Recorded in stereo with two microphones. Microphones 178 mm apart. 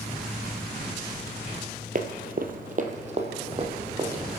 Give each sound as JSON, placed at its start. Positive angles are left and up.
{"t": 1.9, "sound": "running footsteps", "side_deg": -50, "distance_m": 1.2}